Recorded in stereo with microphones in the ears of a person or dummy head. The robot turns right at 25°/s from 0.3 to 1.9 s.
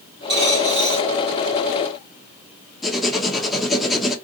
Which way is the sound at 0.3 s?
35° right (ahead or behind).